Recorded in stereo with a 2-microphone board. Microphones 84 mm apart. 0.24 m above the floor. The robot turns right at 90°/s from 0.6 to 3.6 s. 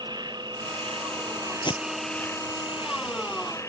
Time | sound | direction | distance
0.0 | an insect | 125° right | ?
1.6 | tape being pulled | 65° left (ahead or behind) | ?